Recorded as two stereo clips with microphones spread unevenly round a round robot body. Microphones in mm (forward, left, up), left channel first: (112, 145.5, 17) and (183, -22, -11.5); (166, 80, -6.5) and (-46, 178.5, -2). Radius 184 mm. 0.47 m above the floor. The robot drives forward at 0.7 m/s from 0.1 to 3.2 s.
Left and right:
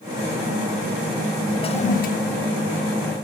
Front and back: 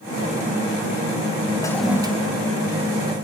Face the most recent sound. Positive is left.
turn(degrees=155)